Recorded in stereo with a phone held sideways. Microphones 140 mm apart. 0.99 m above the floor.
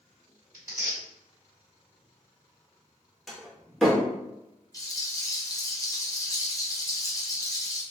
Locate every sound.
0.5 s tearing paper: 25° right (ahead or behind), 1.8 m
3.3 s a door slam: centre (ahead or behind), 0.8 m
4.7 s a rattle: 25° left (ahead or behind), 0.6 m